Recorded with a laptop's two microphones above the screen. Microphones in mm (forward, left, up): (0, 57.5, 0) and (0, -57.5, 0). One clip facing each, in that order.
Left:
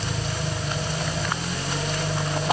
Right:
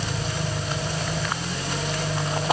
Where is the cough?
No cough in this recording.